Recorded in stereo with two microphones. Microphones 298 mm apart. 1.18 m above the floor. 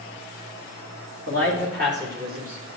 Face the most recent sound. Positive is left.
turn(degrees=-25)  # may be behind; listen again after turning